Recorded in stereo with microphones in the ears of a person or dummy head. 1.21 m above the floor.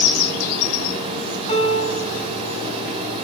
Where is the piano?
40° left (ahead or behind), 4 m.